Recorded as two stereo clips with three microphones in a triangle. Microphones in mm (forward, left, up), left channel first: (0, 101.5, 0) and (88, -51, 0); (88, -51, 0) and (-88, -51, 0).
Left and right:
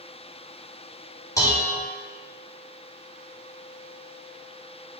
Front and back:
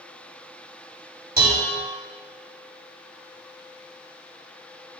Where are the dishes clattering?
170° right, 1.1 m.